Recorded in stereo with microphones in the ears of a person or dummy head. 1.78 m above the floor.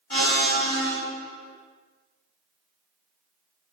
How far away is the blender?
About 1.6 m.